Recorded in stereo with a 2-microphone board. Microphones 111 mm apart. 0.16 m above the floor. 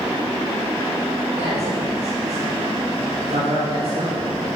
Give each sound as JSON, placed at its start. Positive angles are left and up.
{"t": 1.4, "sound": "a man speaking", "side_deg": -70, "distance_m": 6.5}